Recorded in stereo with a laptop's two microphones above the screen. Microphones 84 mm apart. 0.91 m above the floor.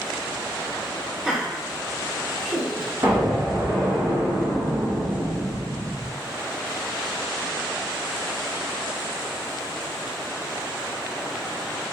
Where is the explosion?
45° right (ahead or behind), 1.5 m.